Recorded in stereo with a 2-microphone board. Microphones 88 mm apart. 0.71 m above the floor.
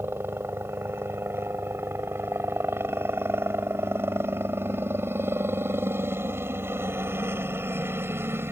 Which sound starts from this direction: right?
A helicopter, at 0.0 s.